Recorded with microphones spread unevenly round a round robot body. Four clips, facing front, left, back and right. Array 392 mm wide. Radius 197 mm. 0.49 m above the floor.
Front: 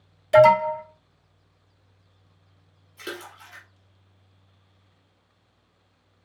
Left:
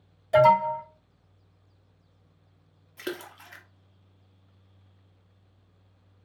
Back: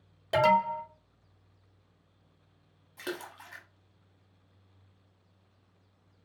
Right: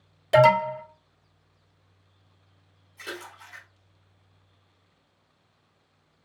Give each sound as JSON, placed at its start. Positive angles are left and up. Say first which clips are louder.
{"t": 0.3, "sound": "an alarm", "louder": "right 1 dB, front 9 dB", "azimuth_deg": -105, "distance_m": 3.0}
{"t": 3.0, "sound": "a splash", "louder": "left 4 dB, front 1 dB", "azimuth_deg": 105, "distance_m": 1.0}